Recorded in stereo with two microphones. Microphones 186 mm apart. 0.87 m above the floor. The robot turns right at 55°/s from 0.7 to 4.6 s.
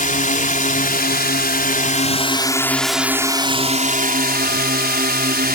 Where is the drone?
60° left; by 5.5 s 85° right.